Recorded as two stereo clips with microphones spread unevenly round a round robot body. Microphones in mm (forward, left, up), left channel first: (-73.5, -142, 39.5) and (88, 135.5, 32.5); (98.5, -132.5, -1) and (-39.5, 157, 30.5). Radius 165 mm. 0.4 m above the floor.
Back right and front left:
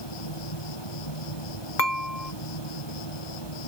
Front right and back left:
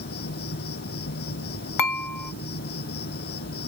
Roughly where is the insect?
Behind right.